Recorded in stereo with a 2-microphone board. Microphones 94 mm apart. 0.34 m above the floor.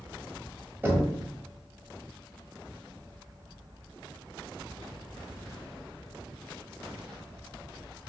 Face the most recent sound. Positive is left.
turn(degrees=-20)  # may be behind; listen again after turning